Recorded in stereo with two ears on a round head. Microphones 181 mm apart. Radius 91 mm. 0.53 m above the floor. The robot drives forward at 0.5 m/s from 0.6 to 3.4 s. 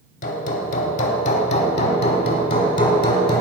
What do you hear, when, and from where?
0.2 s hammering: 40° left (ahead or behind), 1.1 m; by 3.4 s 25° left (ahead or behind), 1.9 m